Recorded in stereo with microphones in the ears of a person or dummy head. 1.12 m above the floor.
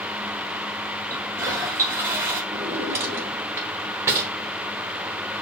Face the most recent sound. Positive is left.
turn(degrees=-15)  # may be behind; listen again after turning